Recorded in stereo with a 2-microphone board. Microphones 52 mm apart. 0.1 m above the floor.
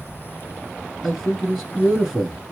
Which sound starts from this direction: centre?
A man speaking, at 1.0 s.